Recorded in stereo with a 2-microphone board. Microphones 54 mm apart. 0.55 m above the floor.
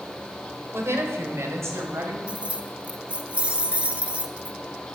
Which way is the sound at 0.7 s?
60° right (ahead or behind).